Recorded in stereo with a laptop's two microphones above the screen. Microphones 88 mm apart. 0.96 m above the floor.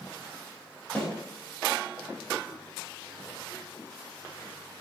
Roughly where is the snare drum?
Centre.